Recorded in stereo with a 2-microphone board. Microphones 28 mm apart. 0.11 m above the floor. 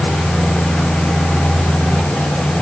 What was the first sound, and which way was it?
Only background noise.